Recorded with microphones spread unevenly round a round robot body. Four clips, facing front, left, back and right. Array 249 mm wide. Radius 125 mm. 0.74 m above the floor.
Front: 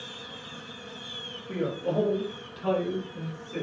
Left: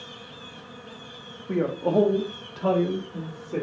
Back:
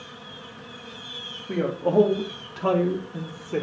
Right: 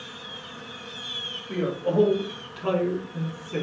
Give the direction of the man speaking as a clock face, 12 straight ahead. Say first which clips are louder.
Left 2 dB, back 6 dB; 8 o'clock.